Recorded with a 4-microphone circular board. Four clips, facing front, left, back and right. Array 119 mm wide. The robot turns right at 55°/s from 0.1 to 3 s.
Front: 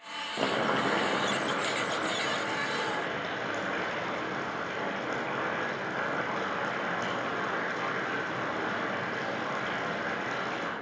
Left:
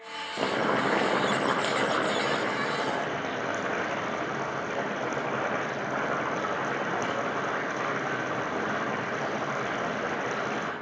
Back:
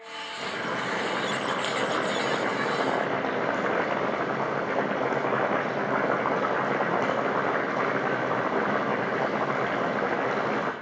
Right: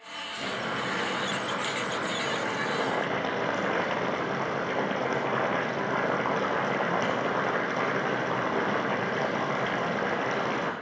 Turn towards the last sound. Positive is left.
turn(degrees=-165)